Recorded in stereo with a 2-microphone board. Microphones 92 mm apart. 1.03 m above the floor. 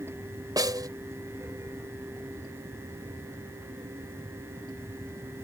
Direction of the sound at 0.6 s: 45° right (ahead or behind).